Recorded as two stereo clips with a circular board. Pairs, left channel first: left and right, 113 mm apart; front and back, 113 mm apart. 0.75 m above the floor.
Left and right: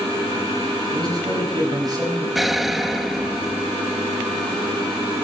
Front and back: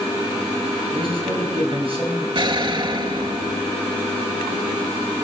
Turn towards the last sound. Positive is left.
turn(degrees=180)